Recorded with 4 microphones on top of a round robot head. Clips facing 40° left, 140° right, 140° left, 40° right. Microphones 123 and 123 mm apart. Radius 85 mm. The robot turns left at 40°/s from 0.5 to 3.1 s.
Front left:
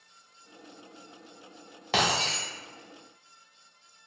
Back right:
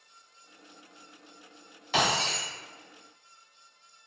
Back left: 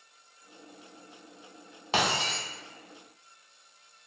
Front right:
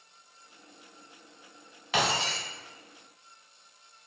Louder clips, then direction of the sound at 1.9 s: Even, even; 80° left.